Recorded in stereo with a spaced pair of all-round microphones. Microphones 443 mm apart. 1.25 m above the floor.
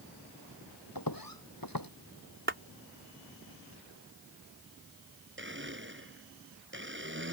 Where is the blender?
25° right (ahead or behind).